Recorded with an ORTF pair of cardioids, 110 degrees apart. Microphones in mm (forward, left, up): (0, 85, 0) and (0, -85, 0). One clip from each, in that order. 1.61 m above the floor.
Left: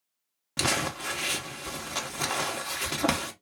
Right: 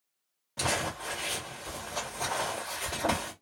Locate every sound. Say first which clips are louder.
0.6 s crumpling: left 3 dB; 65° left, 1.2 m